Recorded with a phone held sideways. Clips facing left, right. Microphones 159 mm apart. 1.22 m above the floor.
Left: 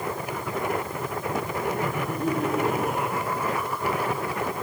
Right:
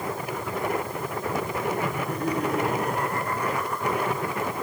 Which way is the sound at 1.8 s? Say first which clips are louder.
Left 1 dB; 5° left (ahead or behind).